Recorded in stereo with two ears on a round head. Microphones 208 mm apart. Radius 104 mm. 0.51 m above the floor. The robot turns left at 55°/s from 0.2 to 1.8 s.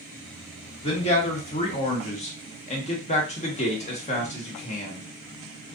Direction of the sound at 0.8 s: 130° left.